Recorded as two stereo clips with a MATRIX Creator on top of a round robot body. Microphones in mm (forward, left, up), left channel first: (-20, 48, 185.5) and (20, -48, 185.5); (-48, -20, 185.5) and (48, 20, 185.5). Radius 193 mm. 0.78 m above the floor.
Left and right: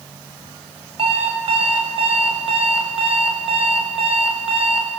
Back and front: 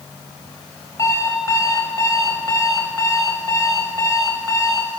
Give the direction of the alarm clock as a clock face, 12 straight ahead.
3 o'clock.